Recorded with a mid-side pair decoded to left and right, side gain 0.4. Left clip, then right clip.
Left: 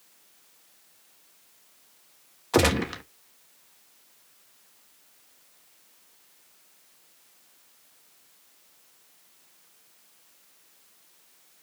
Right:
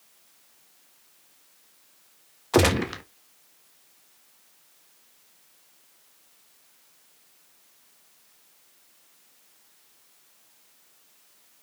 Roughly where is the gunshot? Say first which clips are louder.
Right 1 dB; ahead.